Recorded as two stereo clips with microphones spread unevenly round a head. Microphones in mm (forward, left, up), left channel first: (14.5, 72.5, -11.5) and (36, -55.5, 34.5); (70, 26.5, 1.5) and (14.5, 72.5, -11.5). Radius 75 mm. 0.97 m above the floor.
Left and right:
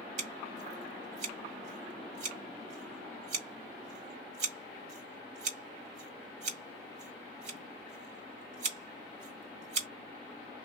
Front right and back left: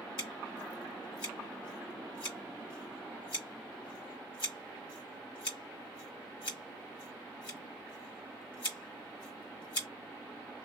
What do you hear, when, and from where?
0.2 s scissors: 60° right, 1.9 m